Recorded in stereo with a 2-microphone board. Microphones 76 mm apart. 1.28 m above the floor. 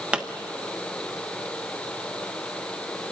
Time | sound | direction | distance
0.1 | a pop | 15° right (ahead or behind) | 1.0 m